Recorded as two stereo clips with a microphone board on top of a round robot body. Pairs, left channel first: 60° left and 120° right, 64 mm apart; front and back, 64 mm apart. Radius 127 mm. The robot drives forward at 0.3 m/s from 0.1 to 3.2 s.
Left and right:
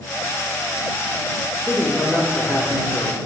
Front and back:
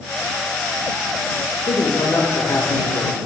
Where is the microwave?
No microwave in this recording.